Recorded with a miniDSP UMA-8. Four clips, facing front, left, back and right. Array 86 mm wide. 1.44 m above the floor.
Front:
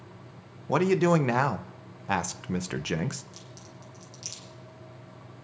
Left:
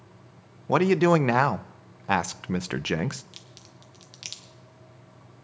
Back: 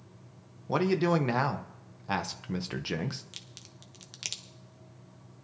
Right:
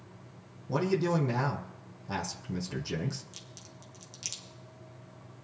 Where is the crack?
155° left, 1.1 m.